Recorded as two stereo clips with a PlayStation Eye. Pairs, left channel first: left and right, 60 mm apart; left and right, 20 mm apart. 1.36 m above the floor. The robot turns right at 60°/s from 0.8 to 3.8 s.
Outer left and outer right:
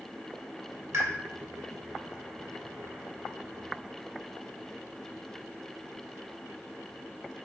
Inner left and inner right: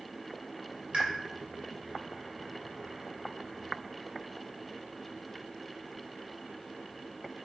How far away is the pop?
About 1.6 m.